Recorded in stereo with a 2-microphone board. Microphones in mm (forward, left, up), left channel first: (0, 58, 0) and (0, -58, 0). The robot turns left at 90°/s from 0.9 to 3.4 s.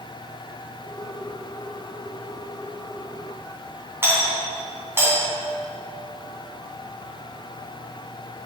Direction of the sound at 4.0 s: 20° right (ahead or behind).